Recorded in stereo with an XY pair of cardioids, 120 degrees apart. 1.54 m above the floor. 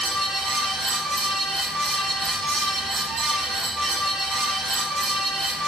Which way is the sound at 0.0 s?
50° right.